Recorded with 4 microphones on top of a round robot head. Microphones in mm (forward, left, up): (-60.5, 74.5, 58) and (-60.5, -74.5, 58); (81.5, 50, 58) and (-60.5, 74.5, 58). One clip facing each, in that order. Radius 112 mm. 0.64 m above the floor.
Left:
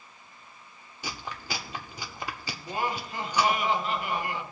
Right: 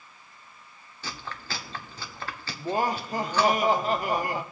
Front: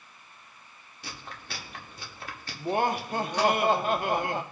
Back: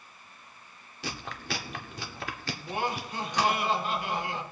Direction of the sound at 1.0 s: 165° left.